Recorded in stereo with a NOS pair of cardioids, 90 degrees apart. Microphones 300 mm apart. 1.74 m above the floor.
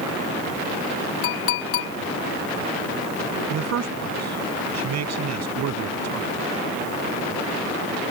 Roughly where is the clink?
Ahead left.